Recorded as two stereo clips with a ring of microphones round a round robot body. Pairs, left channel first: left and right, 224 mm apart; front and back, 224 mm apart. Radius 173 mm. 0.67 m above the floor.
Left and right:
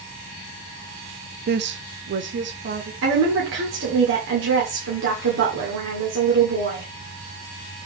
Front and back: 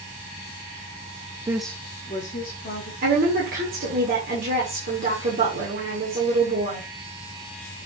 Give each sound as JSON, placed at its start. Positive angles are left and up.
{"t": 1.5, "sound": "a woman speaking", "azimuth_deg": -110, "distance_m": 0.6}
{"t": 3.0, "sound": "a woman speaking", "azimuth_deg": -125, "distance_m": 1.8}